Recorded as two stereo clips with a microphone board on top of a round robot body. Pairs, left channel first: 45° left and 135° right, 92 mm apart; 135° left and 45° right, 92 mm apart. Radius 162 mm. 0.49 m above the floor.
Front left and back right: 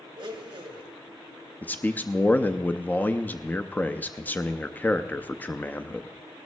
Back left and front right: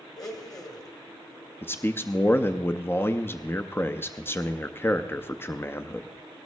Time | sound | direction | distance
0.2 | a blender | 175° right | 2.0 m
1.6 | a man speaking | 95° left | 0.8 m